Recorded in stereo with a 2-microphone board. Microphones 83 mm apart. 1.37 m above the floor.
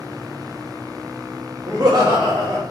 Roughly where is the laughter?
Right.